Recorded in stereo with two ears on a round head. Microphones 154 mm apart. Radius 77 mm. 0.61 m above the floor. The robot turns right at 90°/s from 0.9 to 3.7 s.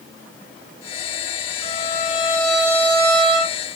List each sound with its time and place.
1.6 s a violin: 100° left, 3 m; by 3.5 s 90° right, 3 m